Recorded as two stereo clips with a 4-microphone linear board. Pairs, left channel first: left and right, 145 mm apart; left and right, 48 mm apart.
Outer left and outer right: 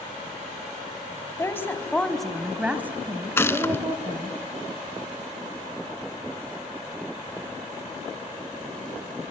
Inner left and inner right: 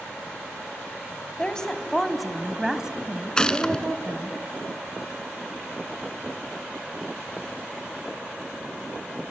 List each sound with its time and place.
1.4 s a woman speaking: 20° left (ahead or behind), 1.6 m; by 4.4 s 40° right (ahead or behind), 1.9 m
3.4 s a gunshot: 15° left (ahead or behind), 0.6 m